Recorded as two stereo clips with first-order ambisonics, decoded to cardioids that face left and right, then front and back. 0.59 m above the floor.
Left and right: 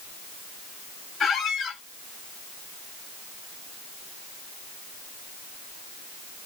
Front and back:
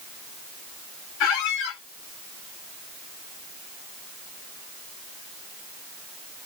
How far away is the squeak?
About 1.0 m.